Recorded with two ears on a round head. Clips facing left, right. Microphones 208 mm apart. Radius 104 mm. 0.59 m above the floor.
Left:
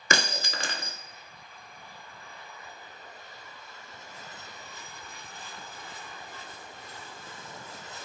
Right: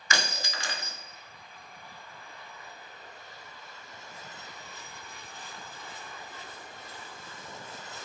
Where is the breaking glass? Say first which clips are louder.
Left 4 dB; 45° left (ahead or behind), 0.6 m.